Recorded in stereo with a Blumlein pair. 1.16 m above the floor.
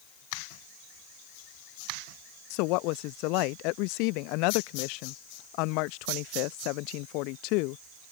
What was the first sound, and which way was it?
A woman speaking, 45° left.